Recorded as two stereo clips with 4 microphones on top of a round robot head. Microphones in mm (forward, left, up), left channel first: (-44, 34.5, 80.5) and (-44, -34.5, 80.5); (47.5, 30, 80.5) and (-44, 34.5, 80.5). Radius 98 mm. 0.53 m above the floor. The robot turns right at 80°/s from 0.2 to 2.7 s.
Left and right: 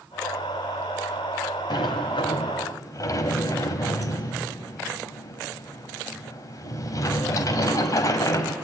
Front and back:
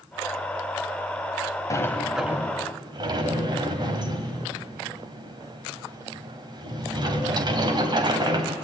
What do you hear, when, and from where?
1.7 s a sliding door: 55° left, 1.7 m; by 8.6 s 135° left, 1.7 m